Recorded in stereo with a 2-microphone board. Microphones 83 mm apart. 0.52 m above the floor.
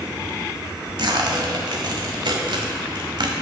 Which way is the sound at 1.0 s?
70° right (ahead or behind).